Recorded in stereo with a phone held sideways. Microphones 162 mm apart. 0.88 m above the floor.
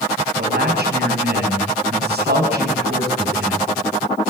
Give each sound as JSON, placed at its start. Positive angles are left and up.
{"t": 0.4, "sound": "a man speaking", "side_deg": -75, "distance_m": 5.5}